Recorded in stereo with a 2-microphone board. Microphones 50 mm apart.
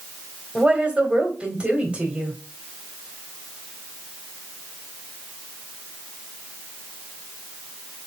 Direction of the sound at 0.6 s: 20° right (ahead or behind).